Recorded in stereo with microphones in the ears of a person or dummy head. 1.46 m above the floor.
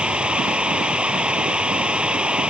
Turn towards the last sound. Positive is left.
turn(degrees=0)  # may be behind; listen again after turning